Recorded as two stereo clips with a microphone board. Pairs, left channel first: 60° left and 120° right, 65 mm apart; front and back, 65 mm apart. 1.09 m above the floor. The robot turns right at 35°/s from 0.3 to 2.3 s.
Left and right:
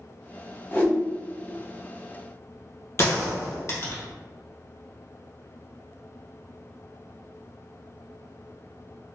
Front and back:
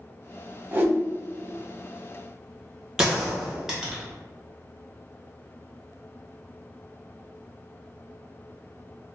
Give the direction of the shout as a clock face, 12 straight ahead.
I don't hear a shout.